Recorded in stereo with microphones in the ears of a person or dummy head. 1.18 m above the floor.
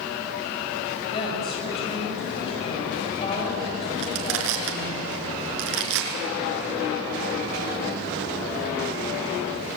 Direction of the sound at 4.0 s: 80° right.